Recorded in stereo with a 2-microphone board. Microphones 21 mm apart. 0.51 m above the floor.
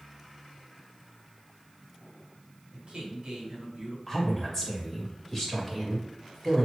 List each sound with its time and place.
2.7 s a man speaking: 50° right (ahead or behind), 2.0 m
4.1 s a woman speaking: 15° left (ahead or behind), 2 m